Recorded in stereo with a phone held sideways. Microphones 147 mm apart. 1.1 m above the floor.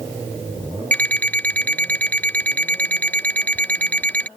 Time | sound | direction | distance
0.9 | an alarm clock | 10° left (ahead or behind) | ?